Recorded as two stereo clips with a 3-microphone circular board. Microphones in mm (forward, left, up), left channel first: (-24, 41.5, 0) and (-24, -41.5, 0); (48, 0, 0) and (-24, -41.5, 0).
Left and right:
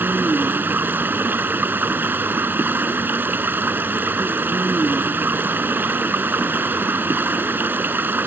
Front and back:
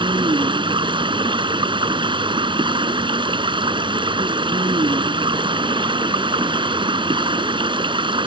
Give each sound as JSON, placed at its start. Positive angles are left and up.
{"t": 0.0, "sound": "running water", "azimuth_deg": -155}